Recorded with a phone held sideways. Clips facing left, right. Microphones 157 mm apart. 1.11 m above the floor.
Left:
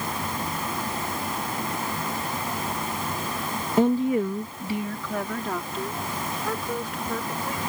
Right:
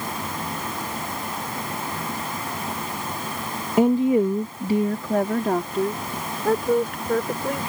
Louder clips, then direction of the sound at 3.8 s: Right 4 dB; 10° right (ahead or behind).